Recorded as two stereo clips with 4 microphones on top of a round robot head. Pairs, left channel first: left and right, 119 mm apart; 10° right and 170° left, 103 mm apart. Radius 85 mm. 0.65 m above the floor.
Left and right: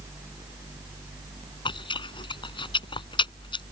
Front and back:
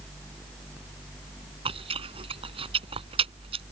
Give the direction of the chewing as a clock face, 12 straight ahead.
7 o'clock.